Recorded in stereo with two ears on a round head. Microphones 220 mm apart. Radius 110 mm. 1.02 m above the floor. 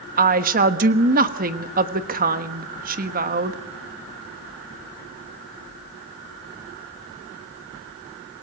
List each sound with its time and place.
0.2 s a woman speaking: 35° right (ahead or behind), 1.2 m